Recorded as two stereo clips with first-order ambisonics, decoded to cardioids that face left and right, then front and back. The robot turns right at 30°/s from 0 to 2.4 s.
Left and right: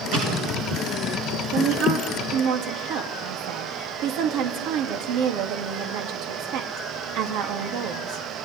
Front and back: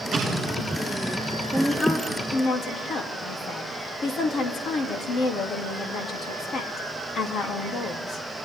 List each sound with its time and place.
0.1 s an explosion: 120° right, 5 m; by 0.8 s 100° right, 5 m
1.5 s a woman speaking: 85° right, 3.5 m; by 8.2 s 60° right, 3.5 m